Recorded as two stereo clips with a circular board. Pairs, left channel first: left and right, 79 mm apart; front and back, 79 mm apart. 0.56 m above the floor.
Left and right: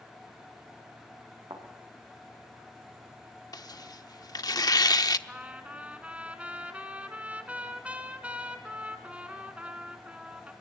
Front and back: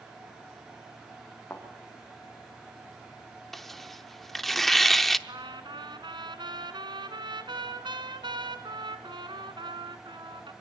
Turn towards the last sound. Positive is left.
turn(degrees=-165)